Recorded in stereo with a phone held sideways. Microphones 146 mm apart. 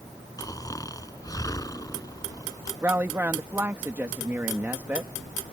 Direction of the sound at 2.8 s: 15° right (ahead or behind).